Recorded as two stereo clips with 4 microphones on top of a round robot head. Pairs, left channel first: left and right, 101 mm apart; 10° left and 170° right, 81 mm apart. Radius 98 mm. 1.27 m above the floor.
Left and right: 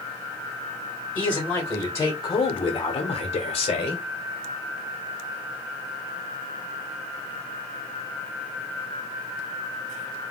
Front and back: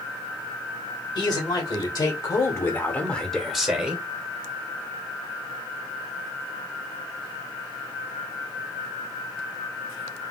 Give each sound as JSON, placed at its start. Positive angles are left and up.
{"t": 1.1, "sound": "a man speaking", "azimuth_deg": 20, "distance_m": 1.7}